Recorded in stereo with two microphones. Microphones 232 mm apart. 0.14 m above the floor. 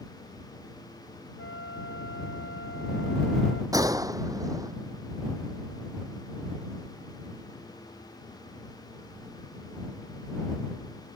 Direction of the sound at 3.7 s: 15° right (ahead or behind).